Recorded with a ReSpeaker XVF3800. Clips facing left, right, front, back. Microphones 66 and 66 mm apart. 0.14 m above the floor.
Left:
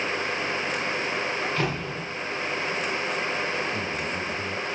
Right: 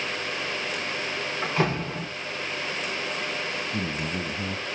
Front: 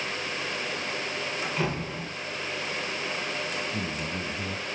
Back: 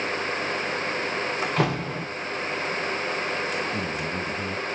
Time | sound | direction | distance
1.4 | a door slam | 160° right | 10 m
3.7 | a man speaking | 110° right | 3 m